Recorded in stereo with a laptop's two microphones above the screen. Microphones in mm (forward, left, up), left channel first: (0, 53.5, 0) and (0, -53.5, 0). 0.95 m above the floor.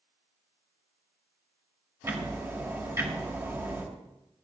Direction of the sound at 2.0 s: 25° right (ahead or behind).